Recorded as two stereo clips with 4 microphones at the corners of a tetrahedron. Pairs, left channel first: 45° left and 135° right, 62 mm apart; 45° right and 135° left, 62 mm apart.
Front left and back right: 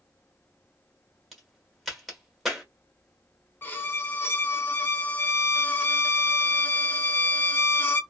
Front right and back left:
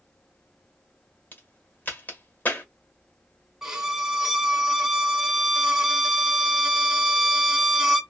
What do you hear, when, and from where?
1.3 s a crack: 50° right, 1.2 m
3.6 s a violin: 55° left, 0.6 m